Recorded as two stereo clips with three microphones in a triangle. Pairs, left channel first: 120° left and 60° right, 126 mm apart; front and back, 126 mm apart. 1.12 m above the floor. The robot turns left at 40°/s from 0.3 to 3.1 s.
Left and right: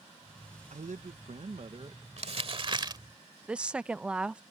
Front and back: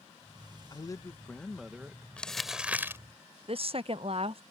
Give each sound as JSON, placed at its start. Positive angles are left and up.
{"t": 0.7, "sound": "a man speaking", "azimuth_deg": -55}
{"t": 2.2, "sound": "crumpling", "azimuth_deg": -80}
{"t": 3.5, "sound": "a woman speaking", "azimuth_deg": -140}